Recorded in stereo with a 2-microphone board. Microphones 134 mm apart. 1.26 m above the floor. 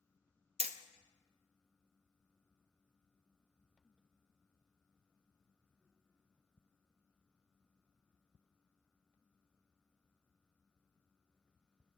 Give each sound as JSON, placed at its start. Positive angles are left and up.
{"t": 0.6, "sound": "hammering", "side_deg": -50, "distance_m": 0.5}